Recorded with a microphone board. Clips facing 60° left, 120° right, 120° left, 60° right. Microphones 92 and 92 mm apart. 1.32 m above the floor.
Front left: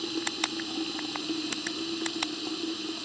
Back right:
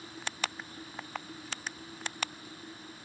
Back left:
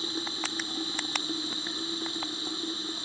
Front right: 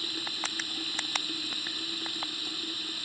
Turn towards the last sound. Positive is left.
turn(degrees=55)